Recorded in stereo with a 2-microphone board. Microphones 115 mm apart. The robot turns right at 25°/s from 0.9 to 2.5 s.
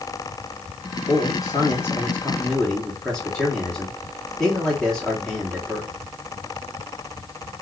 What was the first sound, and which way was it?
A man speaking, 140° left.